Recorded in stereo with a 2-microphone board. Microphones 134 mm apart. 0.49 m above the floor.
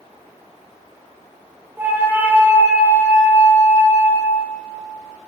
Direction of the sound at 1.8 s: 15° right (ahead or behind).